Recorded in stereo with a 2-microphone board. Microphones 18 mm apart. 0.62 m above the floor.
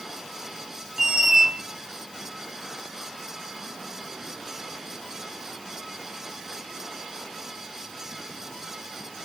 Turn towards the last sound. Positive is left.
turn(degrees=-20)  # may be behind; listen again after turning